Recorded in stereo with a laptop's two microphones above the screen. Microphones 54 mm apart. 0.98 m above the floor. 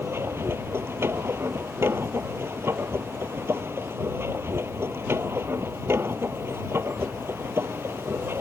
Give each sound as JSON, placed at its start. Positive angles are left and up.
{"t": 0.0, "sound": "a machine running", "side_deg": -50}